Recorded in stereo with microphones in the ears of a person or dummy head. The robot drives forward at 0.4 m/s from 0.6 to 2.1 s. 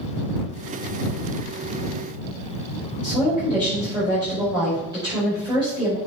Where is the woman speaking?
25° right (ahead or behind), 5 m.